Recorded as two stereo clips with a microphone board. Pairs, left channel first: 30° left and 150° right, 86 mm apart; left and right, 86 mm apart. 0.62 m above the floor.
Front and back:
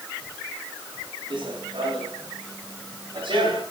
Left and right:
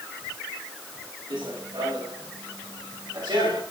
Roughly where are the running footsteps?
Behind right.